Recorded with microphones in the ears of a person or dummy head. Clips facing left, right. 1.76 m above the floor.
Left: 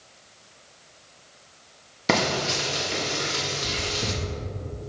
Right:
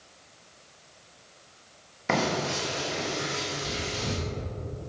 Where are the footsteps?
No footsteps in this recording.